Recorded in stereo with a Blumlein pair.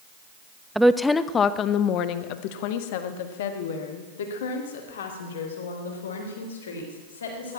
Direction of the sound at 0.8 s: 5° right.